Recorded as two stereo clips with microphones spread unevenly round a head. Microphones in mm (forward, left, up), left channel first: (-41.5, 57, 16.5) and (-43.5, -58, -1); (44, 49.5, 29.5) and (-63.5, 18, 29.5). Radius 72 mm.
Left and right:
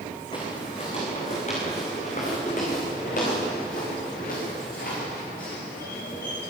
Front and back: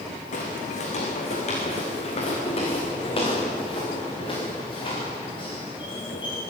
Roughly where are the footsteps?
Ahead left.